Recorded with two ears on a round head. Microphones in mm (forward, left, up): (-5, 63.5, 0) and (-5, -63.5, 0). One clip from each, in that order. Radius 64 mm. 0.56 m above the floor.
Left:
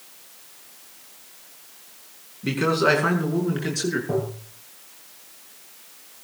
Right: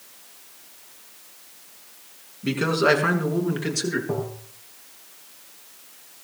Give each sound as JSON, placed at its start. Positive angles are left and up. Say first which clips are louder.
{"t": 2.4, "sound": "a man speaking", "louder": "even", "side_deg": 0, "distance_m": 6.0}
{"t": 4.1, "sound": "tapping", "louder": "left 2 dB", "side_deg": 0, "distance_m": 7.0}